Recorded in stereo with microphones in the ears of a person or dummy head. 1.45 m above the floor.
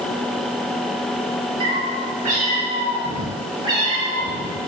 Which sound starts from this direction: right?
A cat meowing, at 1.6 s.